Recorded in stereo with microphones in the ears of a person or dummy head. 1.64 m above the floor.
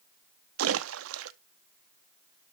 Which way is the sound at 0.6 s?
75° right (ahead or behind).